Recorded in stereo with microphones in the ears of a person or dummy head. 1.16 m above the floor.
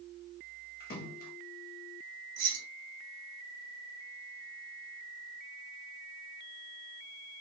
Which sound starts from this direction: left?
A splash, at 0.8 s.